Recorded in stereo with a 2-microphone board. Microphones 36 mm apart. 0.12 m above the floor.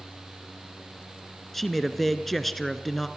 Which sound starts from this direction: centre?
A man speaking, at 1.5 s.